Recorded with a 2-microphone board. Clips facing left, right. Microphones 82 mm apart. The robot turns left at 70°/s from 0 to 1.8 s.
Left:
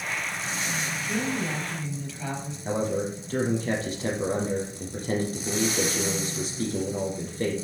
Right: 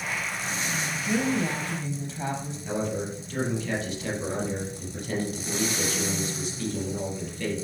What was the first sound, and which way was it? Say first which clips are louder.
A woman speaking: right 4 dB; 90° right.